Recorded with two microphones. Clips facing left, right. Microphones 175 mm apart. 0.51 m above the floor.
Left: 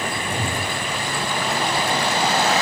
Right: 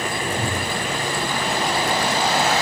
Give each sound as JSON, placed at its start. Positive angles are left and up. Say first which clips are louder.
{"t": 0.2, "sound": "a whoosh", "louder": "right 1 dB", "side_deg": 10, "distance_m": 7.0}